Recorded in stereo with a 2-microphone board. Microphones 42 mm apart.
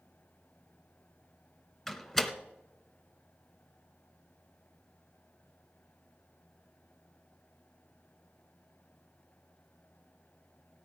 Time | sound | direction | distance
1.9 | a door slam | 10° left (ahead or behind) | 0.9 m